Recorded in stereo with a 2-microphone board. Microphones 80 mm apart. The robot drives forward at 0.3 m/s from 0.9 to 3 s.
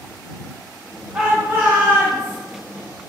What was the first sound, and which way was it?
A shout, 20° right (ahead or behind).